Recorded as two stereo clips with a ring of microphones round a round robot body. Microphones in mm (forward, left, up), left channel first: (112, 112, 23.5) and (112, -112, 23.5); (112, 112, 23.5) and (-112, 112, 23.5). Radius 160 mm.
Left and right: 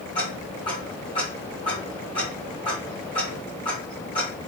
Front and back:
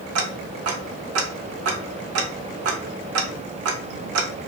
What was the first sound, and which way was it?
Ticking, 165° left.